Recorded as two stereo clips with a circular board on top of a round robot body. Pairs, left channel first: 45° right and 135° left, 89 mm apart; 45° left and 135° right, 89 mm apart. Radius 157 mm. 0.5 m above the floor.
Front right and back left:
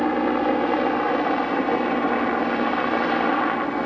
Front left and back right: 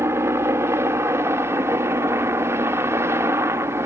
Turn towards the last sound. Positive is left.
turn(degrees=-130)